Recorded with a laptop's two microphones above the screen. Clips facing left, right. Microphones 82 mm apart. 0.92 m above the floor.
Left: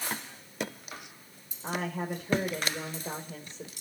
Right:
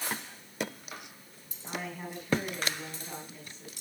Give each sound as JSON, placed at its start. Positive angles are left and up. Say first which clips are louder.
{"t": 1.6, "sound": "a woman speaking", "louder": "left 6 dB", "side_deg": 75, "distance_m": 3.5}